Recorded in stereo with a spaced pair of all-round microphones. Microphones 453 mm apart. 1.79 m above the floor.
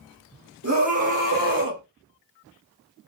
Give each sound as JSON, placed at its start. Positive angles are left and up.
{"t": 0.6, "sound": "a scream", "side_deg": -35, "distance_m": 1.6}